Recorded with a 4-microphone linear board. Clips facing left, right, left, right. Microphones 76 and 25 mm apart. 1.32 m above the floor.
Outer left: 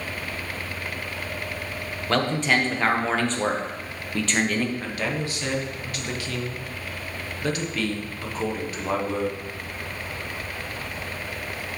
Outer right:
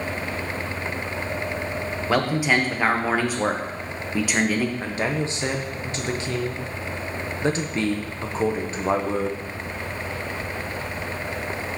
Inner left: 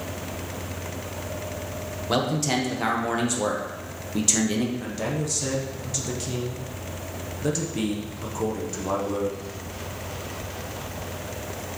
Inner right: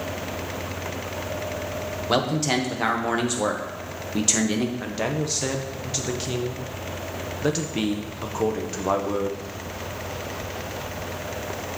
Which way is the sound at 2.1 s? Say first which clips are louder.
Outer right 1 dB, inner right 1 dB; 10° right (ahead or behind).